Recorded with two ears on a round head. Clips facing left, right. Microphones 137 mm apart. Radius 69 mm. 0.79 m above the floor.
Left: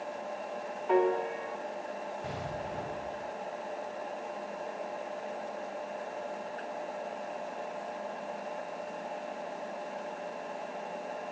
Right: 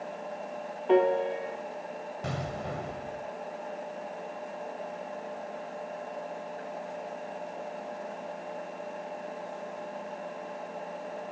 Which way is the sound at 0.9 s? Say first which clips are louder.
Right 4 dB; 35° right (ahead or behind).